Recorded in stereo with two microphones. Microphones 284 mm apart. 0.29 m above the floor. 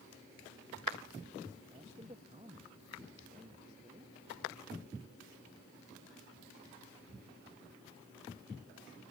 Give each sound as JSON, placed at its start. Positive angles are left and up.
{"t": 1.7, "sound": "a man speaking", "side_deg": -20}